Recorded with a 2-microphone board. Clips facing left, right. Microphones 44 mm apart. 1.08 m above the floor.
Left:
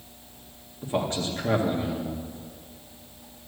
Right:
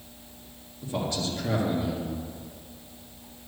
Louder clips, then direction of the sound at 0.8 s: Left 3 dB; 35° left (ahead or behind).